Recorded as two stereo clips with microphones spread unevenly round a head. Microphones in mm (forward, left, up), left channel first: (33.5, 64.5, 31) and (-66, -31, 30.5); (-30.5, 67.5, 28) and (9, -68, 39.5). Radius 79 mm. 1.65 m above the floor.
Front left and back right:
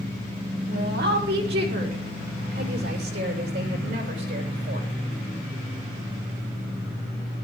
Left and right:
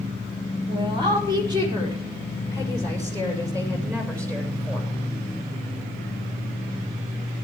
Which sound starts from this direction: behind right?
A woman speaking, at 0.7 s.